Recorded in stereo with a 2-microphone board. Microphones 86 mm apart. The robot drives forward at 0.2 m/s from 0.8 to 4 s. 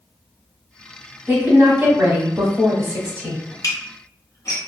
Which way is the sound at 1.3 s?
25° right (ahead or behind).